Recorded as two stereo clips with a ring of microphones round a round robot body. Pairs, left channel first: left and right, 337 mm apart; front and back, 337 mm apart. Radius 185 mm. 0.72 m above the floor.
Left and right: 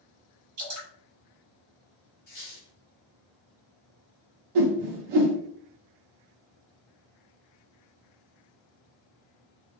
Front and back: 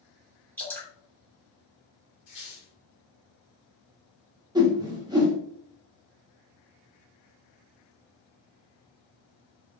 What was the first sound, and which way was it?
Dripping, 85° right.